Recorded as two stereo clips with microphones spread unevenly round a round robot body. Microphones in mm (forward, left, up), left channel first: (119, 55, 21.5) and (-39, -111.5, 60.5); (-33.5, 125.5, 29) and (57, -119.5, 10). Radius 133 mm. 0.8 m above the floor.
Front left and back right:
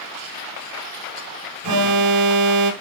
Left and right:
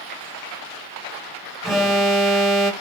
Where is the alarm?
160° right, 1.4 m.